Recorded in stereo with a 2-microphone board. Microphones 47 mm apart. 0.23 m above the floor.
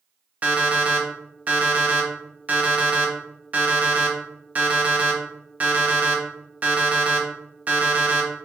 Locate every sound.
0.4 s an alarm clock: 30° right (ahead or behind), 0.8 m